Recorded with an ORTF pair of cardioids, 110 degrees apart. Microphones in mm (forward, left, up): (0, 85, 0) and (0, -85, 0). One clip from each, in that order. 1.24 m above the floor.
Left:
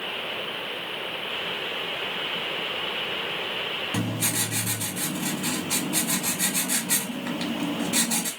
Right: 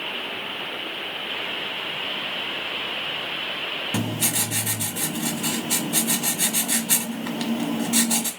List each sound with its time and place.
3.9 s writing: 30° right, 0.9 m